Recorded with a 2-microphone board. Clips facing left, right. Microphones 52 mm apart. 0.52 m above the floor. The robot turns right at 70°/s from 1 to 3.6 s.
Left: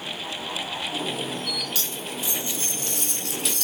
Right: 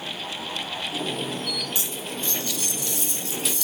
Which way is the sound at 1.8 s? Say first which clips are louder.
Even; 25° right.